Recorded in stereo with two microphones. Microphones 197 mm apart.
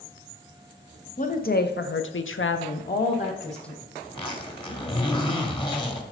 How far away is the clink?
I don't hear a clink.